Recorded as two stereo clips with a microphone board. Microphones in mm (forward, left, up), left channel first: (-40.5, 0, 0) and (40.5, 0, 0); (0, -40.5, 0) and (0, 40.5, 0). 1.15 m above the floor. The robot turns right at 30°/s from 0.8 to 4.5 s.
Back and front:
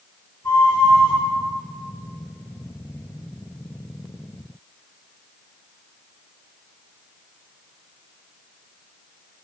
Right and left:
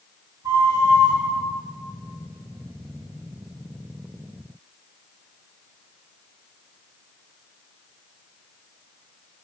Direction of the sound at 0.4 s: 125° left.